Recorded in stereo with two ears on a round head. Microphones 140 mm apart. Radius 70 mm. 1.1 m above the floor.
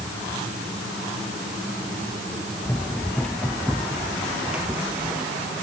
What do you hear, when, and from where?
2.6 s running footsteps: 10° left (ahead or behind); by 5.3 s 15° right (ahead or behind)